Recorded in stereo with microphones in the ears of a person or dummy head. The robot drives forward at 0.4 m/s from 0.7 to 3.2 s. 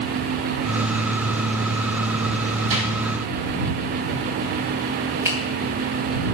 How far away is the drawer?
About 3.5 m.